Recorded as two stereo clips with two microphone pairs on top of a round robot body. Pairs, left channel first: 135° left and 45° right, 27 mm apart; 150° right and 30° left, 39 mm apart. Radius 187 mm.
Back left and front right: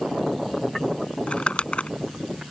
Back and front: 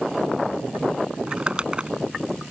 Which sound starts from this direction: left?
Crumpling, at 1.3 s.